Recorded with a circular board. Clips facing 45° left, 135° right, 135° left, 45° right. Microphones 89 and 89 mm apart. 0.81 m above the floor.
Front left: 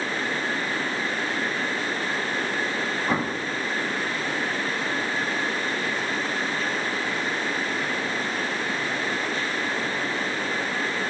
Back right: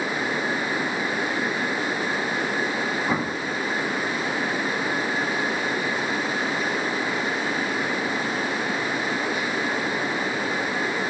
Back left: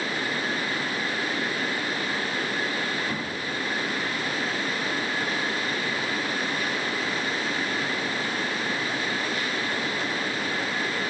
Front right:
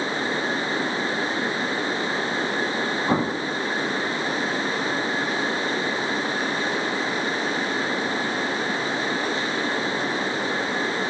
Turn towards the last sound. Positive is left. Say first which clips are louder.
# even, front right 8 dB
turn(degrees=-45)